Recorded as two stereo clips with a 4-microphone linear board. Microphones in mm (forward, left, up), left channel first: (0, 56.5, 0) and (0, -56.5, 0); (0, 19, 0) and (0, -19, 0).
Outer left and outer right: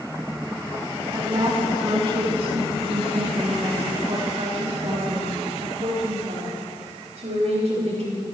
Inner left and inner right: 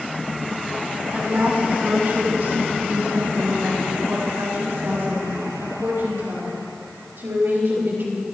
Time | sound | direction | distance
1.1 | a woman speaking | 40° right (ahead or behind) | 3 m